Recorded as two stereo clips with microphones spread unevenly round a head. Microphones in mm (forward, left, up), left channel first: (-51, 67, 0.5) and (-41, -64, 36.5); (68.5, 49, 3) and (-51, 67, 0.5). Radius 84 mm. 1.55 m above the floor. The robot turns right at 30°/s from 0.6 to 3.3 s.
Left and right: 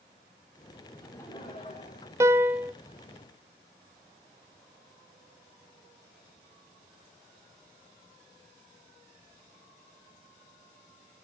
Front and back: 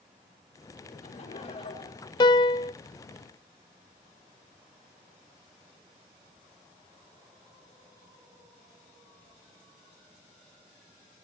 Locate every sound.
0.9 s laughter: 10° left, 5 m; by 2.1 s 45° left, 5 m
2.2 s a piano: 45° right, 0.5 m; by 2.7 s 30° right, 0.5 m